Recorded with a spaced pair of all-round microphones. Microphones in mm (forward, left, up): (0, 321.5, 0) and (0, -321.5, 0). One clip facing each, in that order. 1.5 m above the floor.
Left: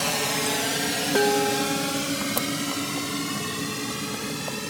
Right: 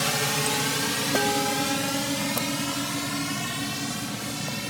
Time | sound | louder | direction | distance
0.0 | a drone | left 1 dB | 45° right (ahead or behind) | ?
1.1 | dishes clattering | left 6 dB | 10° right (ahead or behind) | ?